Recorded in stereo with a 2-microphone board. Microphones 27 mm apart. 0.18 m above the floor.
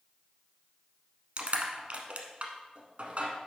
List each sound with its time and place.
1.4 s crushing: 50° right (ahead or behind), 1.1 m